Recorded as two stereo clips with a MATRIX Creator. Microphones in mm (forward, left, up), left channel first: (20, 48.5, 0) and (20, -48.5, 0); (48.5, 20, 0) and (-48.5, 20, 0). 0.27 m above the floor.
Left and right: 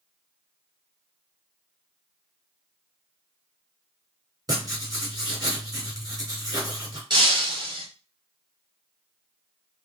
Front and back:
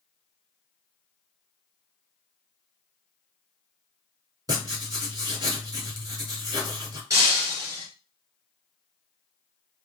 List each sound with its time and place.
4.5 s writing: 135° right, 3 m
7.1 s breaking glass: 125° right, 2.5 m